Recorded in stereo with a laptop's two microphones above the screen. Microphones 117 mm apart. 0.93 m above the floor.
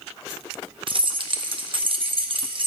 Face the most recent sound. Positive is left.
turn(degrees=-45)  # may be behind; listen again after turning